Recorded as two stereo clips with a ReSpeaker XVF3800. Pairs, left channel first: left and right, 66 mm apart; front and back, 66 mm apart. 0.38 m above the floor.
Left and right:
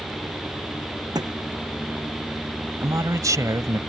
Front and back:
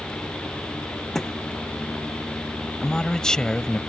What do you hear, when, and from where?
1.1 s a thud: 85° right
2.8 s a man speaking: 80° right